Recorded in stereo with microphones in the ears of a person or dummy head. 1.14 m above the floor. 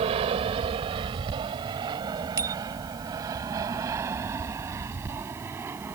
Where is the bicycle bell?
20° right (ahead or behind).